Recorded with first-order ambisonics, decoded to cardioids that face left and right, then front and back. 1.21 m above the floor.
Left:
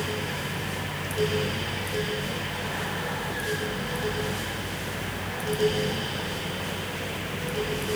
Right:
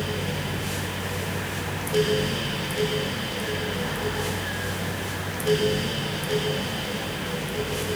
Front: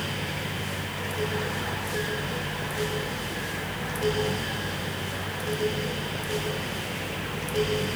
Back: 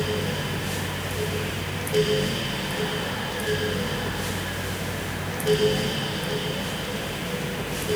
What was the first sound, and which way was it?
Only background noise.